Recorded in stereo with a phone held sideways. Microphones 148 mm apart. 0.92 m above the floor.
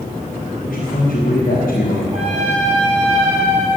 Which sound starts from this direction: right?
A trumpet, at 2.1 s.